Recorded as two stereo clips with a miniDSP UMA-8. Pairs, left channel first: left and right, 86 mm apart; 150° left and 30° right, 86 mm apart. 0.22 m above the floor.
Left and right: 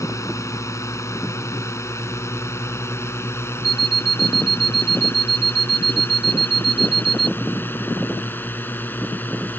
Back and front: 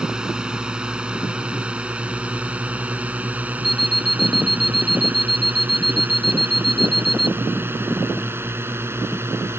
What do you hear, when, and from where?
0.0 s a drone: 50° left; by 9.6 s 25° left
3.6 s an alarm clock: 60° left